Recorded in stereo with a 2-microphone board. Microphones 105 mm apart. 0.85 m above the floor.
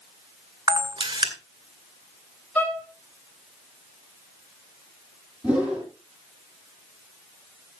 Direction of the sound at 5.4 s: 15° right (ahead or behind).